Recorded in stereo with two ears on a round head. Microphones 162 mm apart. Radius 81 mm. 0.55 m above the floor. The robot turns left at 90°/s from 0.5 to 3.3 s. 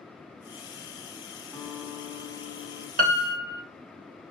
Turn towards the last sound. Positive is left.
turn(degrees=-25)  # may be behind; listen again after turning